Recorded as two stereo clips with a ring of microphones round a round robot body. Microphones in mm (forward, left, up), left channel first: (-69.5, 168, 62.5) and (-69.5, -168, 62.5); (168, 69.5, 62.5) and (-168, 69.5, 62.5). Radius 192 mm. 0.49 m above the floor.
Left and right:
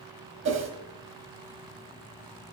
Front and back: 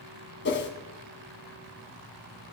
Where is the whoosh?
50° right, 1.6 m.